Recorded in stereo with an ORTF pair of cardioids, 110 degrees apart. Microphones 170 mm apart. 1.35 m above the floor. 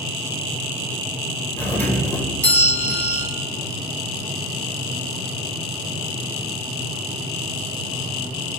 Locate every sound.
1.6 s a doorbell: 10° left, 1.4 m